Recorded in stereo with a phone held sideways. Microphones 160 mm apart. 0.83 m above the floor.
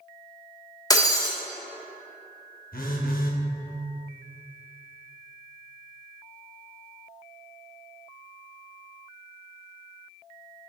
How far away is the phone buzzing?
About 0.7 m.